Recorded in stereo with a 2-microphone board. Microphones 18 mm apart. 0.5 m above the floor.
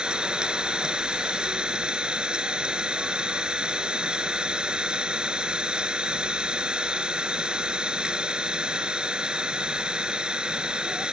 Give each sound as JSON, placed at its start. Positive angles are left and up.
{"t": 0.0, "sound": "an engine running", "side_deg": -65}